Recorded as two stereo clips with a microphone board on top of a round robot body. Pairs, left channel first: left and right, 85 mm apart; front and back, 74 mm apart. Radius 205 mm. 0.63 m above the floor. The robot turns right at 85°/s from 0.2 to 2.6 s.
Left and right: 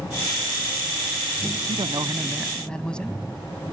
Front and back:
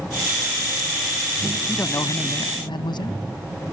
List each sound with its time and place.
1.7 s a man speaking: 70° right; by 3.2 s 10° left